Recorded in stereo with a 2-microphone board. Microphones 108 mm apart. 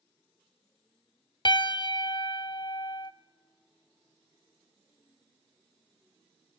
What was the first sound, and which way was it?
A piano, 45° left (ahead or behind).